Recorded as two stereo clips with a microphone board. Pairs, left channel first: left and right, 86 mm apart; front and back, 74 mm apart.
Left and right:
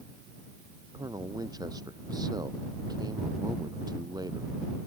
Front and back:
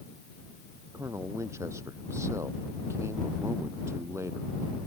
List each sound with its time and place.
0.9 s a man speaking: 130° right